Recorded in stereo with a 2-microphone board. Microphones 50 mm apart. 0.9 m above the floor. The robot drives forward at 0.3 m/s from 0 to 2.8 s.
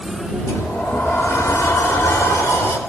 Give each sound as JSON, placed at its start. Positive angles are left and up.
{"t": 0.5, "sound": "a sliding door", "side_deg": 55, "distance_m": 4.0}